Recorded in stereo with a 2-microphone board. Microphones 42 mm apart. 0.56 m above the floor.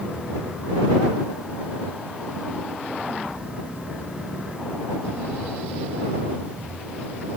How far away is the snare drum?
No snare drum in this recording.